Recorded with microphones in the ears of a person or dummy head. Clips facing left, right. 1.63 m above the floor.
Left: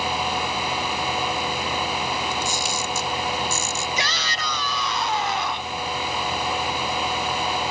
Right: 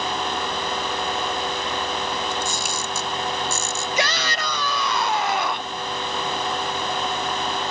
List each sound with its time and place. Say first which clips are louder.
2.3 s a camera shutter: even; 45° right (ahead or behind)
4.0 s a shout: right 4 dB; 50° right (ahead or behind)